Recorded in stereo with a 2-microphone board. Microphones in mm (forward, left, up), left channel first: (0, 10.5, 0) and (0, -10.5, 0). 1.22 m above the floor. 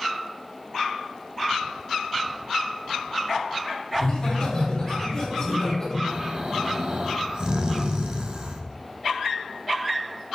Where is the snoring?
45° right (ahead or behind), 1.2 m.